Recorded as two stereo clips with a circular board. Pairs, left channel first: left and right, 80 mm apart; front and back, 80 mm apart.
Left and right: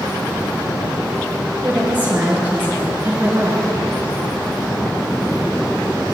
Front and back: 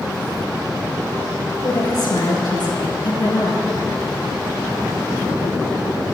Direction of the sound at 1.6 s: 25° right.